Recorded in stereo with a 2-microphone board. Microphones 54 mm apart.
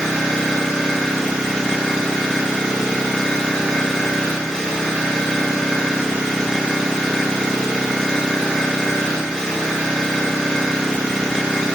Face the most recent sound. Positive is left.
turn(degrees=20)  # may be behind; listen again after turning